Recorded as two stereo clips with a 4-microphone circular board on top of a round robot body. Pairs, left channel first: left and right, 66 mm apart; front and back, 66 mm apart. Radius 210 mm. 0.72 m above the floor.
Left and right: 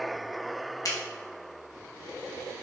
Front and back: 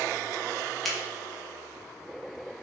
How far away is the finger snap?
About 1.3 m.